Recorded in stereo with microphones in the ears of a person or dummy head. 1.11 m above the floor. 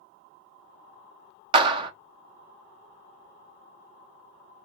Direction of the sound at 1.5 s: 25° right (ahead or behind).